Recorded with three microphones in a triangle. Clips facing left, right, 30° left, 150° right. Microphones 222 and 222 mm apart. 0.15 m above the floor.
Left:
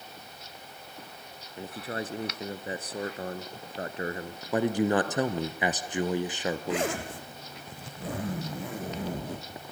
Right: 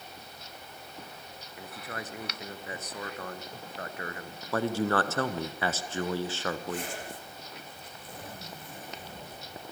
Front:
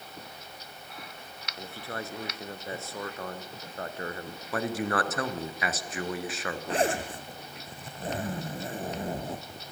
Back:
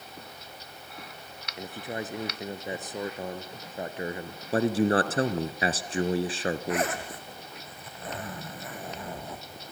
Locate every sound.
1.6 s a man speaking: 140° left, 1.7 m
4.5 s a man speaking: 160° left, 1.5 m
6.7 s a zipper: 90° left, 2.5 m